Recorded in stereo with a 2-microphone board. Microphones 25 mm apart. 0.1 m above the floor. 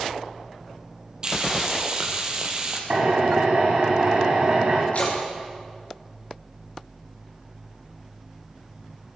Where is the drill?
50° right (ahead or behind), 6.5 m.